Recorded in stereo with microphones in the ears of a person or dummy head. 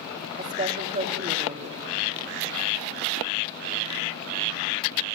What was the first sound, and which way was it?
A woman speaking, 35° right (ahead or behind).